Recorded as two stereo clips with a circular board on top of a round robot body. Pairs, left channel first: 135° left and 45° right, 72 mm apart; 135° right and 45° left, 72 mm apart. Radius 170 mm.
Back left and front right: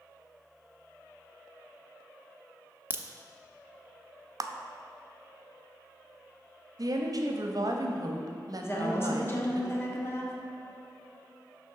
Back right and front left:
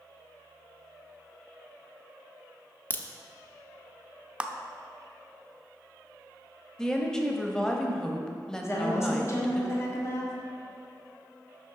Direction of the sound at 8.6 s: Straight behind.